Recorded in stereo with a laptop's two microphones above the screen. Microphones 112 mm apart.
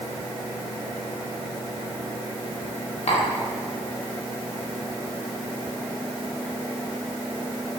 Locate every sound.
3.1 s tapping: 65° left (ahead or behind), 2 m